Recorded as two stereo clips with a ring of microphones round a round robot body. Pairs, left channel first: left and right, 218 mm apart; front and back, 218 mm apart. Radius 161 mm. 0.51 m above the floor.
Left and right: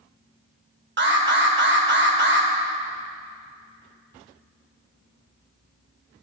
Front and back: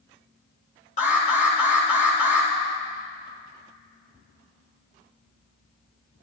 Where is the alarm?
60° right, 2.0 m.